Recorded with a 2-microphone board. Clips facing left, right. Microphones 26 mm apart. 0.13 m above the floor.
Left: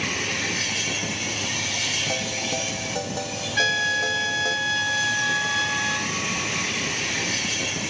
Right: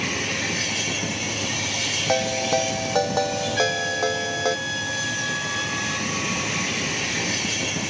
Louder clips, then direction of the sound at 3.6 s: Left 3 dB; 20° left (ahead or behind).